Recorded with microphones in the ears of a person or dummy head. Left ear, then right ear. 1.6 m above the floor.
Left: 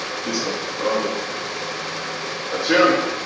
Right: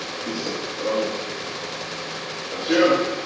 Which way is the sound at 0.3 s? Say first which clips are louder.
Left 4 dB; 50° left (ahead or behind).